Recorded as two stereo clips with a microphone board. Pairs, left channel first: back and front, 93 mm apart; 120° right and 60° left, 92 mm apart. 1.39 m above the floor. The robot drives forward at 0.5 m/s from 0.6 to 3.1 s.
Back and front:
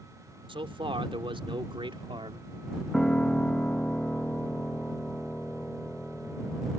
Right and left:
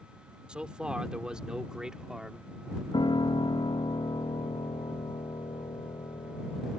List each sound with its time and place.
0.5 s a man speaking: 20° right; by 2.5 s 25° right
2.9 s a piano: 95° right; by 6.8 s 100° right